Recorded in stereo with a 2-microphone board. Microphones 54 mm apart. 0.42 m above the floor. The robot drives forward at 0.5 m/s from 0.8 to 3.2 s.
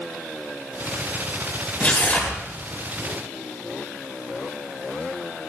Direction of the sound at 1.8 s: 30° left (ahead or behind).